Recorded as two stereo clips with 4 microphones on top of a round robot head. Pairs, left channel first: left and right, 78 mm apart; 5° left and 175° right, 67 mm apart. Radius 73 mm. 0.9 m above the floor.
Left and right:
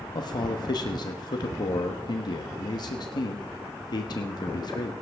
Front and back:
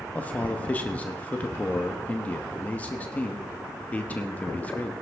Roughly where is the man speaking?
Left.